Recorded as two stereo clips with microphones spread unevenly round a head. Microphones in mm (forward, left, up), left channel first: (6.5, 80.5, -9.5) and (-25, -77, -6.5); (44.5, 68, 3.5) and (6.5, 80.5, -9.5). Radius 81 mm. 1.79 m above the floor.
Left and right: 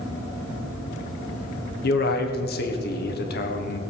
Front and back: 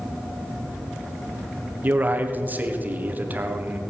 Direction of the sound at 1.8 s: 110° left.